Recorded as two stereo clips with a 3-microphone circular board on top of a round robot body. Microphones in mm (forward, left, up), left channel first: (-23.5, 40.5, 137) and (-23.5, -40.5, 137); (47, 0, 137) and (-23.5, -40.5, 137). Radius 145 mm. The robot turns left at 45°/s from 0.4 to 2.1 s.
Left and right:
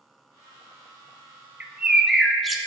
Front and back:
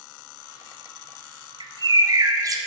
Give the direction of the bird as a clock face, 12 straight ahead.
5 o'clock.